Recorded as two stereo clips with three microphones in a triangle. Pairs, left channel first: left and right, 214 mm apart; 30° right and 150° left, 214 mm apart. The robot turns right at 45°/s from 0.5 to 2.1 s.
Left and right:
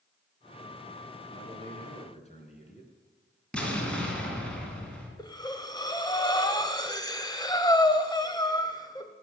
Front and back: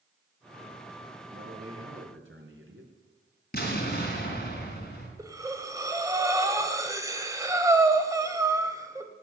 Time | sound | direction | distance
1.3 | a man speaking | 110° left | 3.5 m
3.5 | an explosion | 5° left | 3.5 m
5.2 | breathing | 110° left | 1.1 m